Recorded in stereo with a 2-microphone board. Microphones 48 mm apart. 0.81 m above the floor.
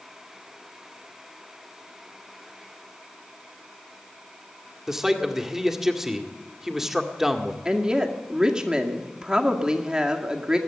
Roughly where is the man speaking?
Centre.